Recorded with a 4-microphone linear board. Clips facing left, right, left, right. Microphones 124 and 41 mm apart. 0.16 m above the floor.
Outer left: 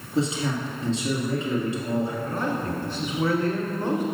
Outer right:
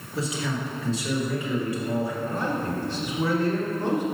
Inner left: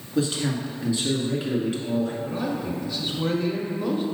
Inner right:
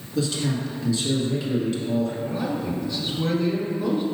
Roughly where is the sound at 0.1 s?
Left.